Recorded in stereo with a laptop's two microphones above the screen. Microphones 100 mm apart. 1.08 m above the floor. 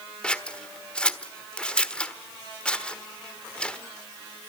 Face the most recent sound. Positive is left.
turn(degrees=10)  # may be behind; listen again after turning